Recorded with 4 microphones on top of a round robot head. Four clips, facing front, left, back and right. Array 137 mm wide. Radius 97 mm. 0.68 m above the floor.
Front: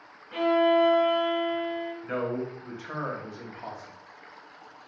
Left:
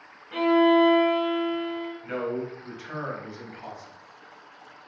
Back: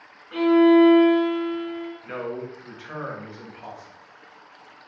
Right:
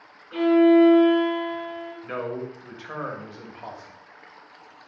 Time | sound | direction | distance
0.3 | a violin | 105° left | 1.5 m
2.0 | a man speaking | 65° right | 1.2 m